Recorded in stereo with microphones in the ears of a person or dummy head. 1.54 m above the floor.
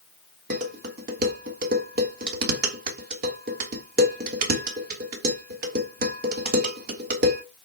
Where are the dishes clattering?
50° right (ahead or behind), 3 m.